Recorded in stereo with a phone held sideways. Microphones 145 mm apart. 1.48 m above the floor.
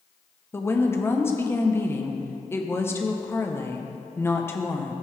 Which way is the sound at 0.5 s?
15° left (ahead or behind).